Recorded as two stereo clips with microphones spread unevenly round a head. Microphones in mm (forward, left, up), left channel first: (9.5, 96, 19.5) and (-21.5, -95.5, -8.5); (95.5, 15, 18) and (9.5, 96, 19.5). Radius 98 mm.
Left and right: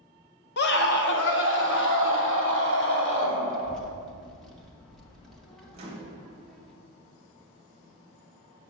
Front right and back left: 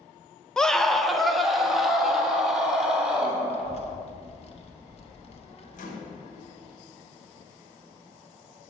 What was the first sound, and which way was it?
A scream, 40° left.